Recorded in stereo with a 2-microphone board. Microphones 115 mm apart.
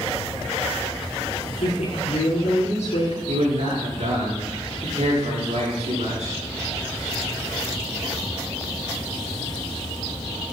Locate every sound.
1.6 s a woman speaking: 70° left (ahead or behind), 6.5 m
3.3 s a man speaking: 85° right, 6.5 m